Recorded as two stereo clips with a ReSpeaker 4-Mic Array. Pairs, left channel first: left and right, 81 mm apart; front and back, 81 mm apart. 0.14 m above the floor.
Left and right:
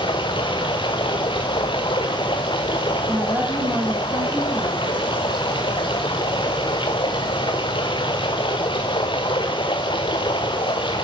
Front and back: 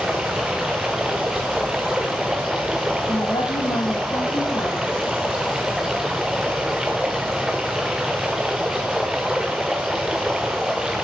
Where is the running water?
95° left, 1.5 m.